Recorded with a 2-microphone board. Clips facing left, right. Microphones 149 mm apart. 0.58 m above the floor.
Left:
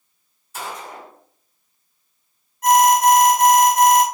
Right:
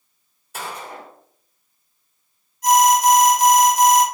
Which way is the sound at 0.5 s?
65° right (ahead or behind).